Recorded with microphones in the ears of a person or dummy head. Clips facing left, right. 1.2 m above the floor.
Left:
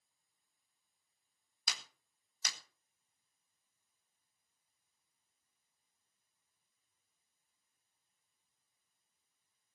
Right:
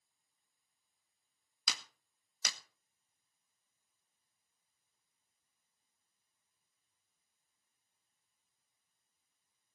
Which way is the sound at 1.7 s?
65° right (ahead or behind).